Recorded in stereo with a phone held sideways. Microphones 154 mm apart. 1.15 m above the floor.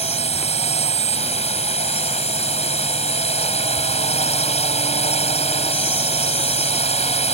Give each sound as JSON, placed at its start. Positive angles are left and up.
{"t": 0.0, "sound": "a drone", "side_deg": 40}